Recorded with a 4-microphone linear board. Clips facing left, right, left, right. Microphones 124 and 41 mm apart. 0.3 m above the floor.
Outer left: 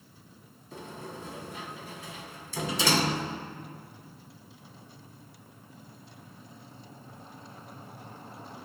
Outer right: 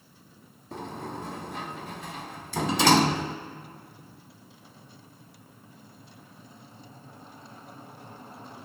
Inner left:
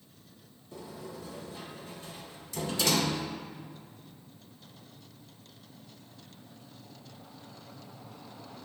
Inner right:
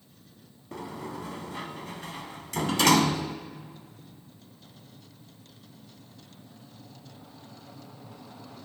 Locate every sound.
0.7 s a sliding door: 65° right (ahead or behind), 0.7 m